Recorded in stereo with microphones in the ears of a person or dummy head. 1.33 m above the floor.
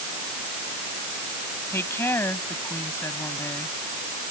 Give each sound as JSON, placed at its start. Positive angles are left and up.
{"t": 1.7, "sound": "a woman speaking", "side_deg": 15}